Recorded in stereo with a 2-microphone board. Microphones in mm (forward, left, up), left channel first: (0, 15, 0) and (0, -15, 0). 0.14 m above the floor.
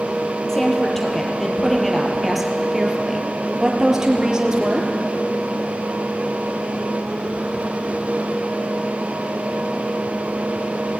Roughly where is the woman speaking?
Centre.